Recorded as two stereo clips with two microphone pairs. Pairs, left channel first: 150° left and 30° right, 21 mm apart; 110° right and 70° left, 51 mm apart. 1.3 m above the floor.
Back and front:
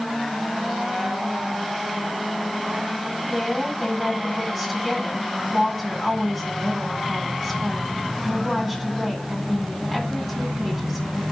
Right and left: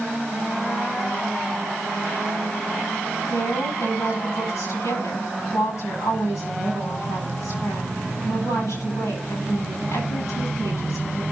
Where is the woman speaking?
120° right, 9 m.